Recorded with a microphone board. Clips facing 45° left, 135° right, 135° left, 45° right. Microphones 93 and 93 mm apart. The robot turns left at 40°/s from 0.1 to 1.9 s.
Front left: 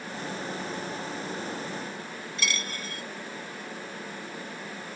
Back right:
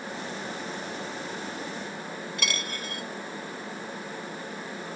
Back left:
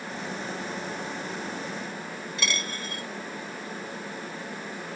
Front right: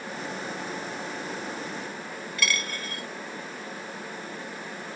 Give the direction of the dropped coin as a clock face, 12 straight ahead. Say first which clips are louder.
Front left 2 dB, front right 3 dB; 5 o'clock.